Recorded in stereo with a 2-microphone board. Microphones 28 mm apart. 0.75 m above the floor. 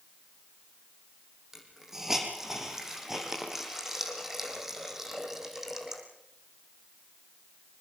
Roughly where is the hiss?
Centre.